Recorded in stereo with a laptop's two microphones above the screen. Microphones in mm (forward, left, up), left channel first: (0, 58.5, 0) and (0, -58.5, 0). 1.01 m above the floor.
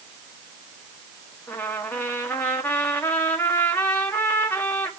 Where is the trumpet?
15° left (ahead or behind), 1.4 m.